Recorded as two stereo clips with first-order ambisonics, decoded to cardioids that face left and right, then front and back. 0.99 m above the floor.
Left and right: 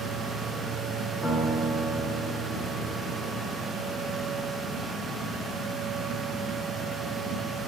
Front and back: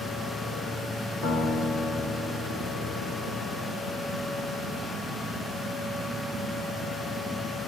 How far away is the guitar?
About 4.5 m.